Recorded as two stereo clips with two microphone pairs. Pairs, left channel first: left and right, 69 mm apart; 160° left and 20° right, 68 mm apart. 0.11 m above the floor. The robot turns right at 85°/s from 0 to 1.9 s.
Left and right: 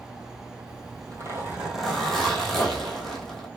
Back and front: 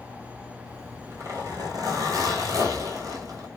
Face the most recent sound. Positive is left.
turn(degrees=0)